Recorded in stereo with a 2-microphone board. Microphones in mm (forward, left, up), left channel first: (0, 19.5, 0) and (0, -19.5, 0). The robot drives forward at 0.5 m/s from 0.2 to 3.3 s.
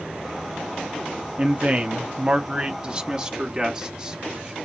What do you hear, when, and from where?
1.4 s a man speaking: 30° right (ahead or behind), 0.6 m; by 4.5 s 20° right (ahead or behind), 1.1 m